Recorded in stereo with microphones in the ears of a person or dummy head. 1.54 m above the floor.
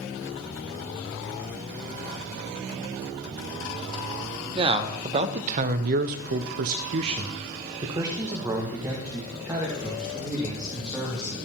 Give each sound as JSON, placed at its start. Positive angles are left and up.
{"t": 4.5, "sound": "a man speaking", "side_deg": -30, "distance_m": 1.1}